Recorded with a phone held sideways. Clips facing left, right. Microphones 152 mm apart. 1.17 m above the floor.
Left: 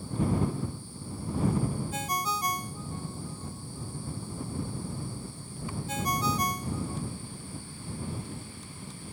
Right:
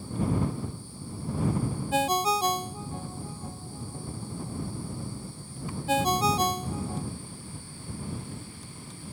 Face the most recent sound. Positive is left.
turn(degrees=-70)  # may be behind; listen again after turning